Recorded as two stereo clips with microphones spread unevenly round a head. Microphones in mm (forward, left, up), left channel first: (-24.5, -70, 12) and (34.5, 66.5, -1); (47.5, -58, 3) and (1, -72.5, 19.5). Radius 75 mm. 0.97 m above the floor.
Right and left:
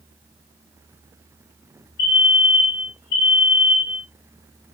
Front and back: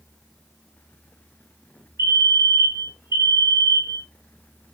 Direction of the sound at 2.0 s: 135° right.